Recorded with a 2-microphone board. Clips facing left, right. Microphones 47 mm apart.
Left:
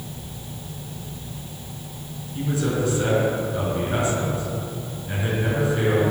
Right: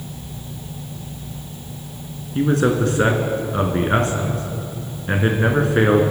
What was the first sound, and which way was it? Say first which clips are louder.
A man speaking: right 7 dB; 55° right (ahead or behind).